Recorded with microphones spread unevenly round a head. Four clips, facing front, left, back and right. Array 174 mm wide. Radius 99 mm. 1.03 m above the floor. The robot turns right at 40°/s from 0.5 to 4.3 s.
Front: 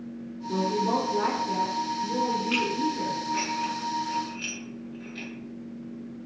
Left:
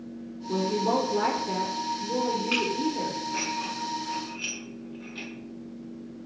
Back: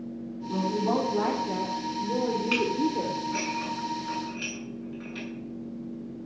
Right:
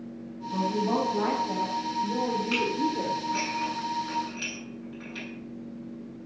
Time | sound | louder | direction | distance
0.5 | a woman speaking | left 1 dB, front 1 dB | 80° left | 3.5 m
2.5 | dishes clattering | even, back 1 dB | 175° left | 7.5 m